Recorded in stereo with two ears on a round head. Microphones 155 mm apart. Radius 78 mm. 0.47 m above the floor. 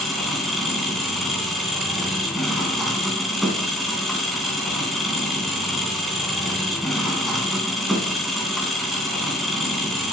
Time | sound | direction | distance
0.0 | an engine running | centre (ahead or behind) | 3 m